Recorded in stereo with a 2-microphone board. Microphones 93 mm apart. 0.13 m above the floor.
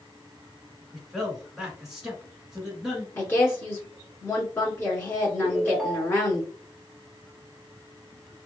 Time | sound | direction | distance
0.9 | a man speaking | 5° right (ahead or behind) | 1.1 m
3.1 | a woman speaking | 25° left (ahead or behind) | 1.5 m
5.4 | a ringtone | 5° right (ahead or behind) | 1.1 m